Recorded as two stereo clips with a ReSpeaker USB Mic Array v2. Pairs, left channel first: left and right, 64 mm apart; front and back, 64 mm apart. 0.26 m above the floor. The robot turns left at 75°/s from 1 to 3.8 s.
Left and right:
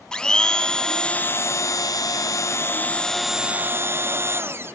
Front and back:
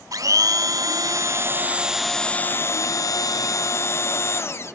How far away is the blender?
About 0.7 m.